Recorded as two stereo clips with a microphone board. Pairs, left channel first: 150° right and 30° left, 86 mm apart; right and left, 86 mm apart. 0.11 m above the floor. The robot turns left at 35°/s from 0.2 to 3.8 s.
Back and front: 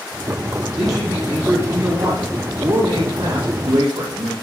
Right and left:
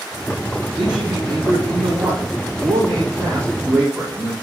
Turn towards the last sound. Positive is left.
turn(degrees=20)